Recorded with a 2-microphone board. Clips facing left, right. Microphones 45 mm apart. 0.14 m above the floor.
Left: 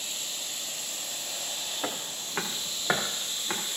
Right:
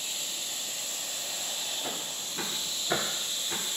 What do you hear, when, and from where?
1.8 s footsteps: 90° left, 3 m; by 3.6 s 70° left (ahead or behind), 5 m